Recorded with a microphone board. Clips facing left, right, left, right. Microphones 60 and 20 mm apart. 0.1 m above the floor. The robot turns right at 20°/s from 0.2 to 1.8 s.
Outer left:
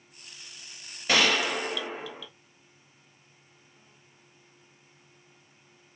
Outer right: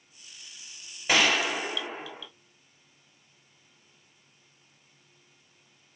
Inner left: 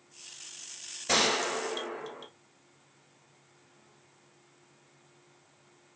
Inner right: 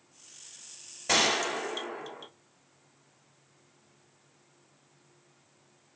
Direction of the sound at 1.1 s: 10° right (ahead or behind).